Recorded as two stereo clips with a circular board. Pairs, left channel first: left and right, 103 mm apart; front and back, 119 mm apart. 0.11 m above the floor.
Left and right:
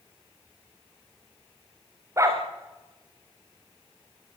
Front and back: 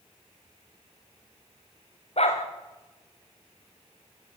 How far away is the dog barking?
About 5 m.